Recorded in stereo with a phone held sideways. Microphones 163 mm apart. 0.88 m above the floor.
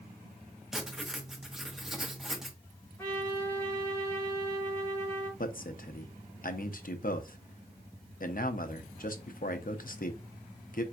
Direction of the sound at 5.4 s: 60° left (ahead or behind).